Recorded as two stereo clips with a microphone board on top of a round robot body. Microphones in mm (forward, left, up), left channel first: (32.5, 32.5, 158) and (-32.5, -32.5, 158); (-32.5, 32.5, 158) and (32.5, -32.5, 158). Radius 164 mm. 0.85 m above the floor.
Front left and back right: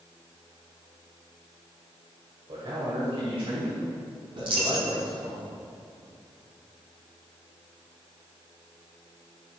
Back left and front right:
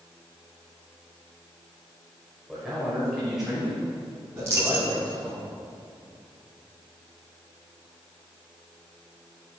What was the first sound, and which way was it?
A man speaking, 135° right.